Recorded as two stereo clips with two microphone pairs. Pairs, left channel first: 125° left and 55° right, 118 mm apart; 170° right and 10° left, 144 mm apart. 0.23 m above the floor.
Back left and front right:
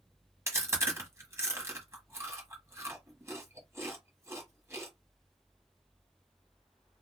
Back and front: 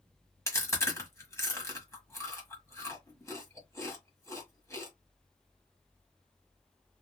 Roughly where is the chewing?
Right.